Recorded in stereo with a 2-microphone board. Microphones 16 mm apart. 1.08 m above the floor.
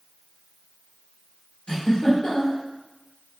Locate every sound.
1.7 s a giggle: 60° left (ahead or behind), 1.8 m